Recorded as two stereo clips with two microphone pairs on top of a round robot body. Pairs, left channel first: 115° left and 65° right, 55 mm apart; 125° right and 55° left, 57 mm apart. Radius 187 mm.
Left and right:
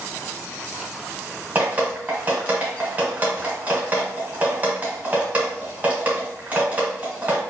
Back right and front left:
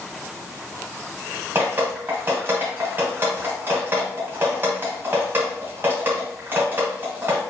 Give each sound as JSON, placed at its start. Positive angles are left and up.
{"t": 1.6, "sound": "dripping", "azimuth_deg": 0, "distance_m": 0.8}